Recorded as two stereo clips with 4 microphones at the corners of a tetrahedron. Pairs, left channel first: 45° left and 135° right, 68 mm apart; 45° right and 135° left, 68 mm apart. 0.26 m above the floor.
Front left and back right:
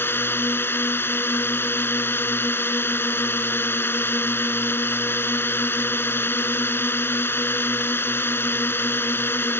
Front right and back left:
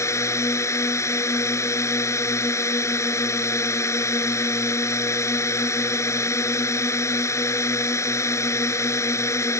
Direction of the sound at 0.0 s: 5° right.